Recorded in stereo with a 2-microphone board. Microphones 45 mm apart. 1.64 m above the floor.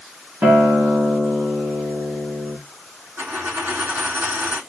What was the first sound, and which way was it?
A guitar, 35° right (ahead or behind).